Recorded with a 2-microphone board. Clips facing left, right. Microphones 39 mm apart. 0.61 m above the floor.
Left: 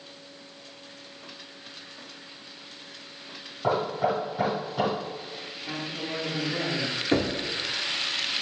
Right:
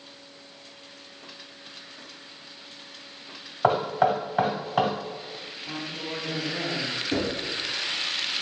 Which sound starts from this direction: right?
Knocking, at 3.6 s.